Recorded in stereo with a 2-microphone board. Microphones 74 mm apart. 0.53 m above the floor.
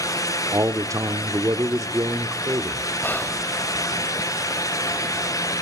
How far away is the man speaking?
About 1.2 m.